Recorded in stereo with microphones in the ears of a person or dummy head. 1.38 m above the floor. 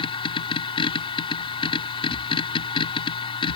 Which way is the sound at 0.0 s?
20° left (ahead or behind).